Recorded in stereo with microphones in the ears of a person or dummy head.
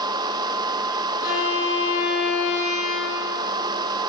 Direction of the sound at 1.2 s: 60° left (ahead or behind).